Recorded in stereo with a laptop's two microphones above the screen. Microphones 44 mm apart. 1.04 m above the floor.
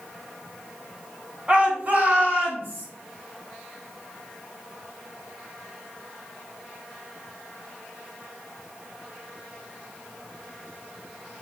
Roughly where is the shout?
Right.